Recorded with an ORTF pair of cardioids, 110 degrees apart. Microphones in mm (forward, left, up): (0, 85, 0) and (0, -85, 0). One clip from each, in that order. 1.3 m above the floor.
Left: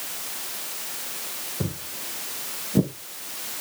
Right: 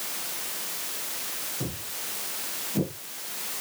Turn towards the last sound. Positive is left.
turn(degrees=70)